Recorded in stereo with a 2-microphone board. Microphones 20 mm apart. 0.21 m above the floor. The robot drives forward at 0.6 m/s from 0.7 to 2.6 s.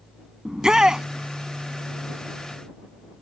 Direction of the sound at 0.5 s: 35° right (ahead or behind).